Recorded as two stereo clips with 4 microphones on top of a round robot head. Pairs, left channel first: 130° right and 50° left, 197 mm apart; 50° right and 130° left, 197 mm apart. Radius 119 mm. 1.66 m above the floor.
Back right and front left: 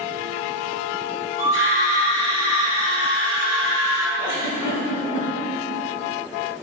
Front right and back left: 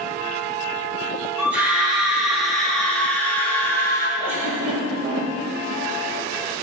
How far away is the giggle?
About 4.5 m.